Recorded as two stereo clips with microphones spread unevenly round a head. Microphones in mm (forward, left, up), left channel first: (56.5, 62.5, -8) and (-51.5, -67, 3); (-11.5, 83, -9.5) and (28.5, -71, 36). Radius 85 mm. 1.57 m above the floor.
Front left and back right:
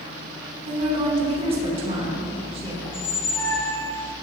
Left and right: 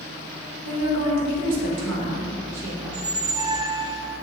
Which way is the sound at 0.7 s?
70° right.